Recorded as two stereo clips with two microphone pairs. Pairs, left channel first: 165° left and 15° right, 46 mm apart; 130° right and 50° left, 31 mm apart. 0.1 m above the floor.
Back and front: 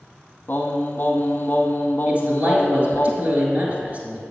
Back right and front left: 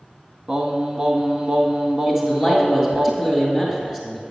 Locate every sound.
0.5 s singing: 115° left, 1.2 m
2.1 s a man speaking: 15° right, 1.8 m